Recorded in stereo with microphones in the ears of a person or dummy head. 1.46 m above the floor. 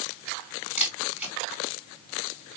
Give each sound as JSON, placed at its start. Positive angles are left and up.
{"t": 0.8, "sound": "a camera shutter", "side_deg": -10, "distance_m": 5.0}